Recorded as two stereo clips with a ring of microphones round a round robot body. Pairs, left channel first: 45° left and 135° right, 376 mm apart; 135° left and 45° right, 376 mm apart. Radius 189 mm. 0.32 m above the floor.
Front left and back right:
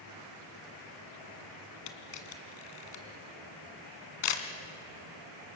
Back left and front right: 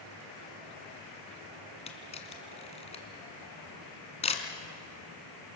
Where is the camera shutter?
60° left, 2 m.